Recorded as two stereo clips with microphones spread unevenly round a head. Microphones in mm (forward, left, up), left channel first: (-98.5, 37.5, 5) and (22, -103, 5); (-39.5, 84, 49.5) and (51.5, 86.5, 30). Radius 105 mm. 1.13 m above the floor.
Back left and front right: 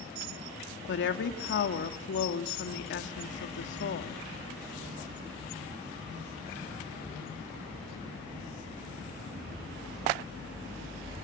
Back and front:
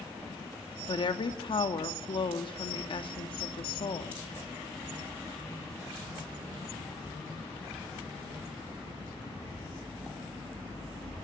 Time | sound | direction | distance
0.9 | a woman speaking | 150° left | 2.5 m